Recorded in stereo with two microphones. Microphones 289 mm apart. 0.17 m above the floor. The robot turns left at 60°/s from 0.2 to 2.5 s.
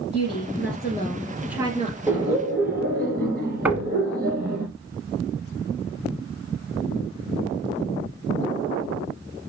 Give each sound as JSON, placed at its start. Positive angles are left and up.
{"t": 0.1, "sound": "a woman speaking", "azimuth_deg": 75, "distance_m": 3.0}
{"t": 2.1, "sound": "laughter", "side_deg": -5, "distance_m": 3.0}
{"t": 3.6, "sound": "knocking", "side_deg": -5, "distance_m": 1.2}